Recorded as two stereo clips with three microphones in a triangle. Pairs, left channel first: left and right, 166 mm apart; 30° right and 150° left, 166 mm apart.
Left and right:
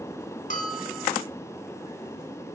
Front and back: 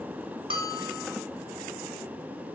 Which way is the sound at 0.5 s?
105° left.